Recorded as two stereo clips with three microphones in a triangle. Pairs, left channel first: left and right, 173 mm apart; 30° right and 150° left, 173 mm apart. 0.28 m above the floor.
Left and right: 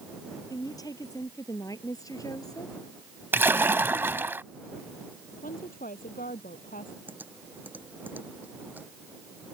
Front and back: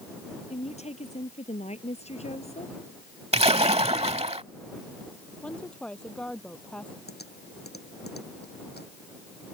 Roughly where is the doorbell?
No doorbell in this recording.